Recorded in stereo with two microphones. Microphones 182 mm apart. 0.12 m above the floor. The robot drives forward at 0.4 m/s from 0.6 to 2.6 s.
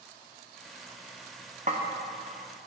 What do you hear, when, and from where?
1.7 s a snare drum: 45° right (ahead or behind), 1.8 m